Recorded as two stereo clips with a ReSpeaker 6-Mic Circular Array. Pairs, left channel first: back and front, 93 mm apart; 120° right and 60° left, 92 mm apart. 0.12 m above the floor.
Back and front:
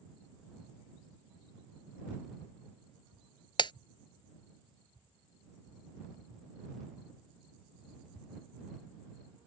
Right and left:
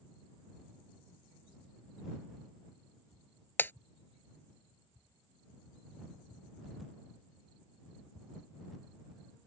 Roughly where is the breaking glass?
Behind.